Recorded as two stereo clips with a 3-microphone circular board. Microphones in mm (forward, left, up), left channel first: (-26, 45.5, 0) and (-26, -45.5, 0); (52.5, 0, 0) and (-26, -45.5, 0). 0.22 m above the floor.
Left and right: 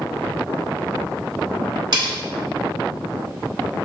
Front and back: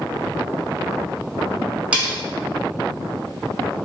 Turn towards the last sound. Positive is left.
turn(degrees=-75)